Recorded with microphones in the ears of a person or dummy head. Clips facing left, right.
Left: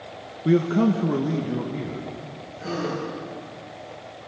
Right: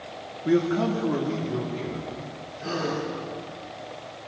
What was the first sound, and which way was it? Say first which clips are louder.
A man speaking: left 3 dB; 35° left (ahead or behind).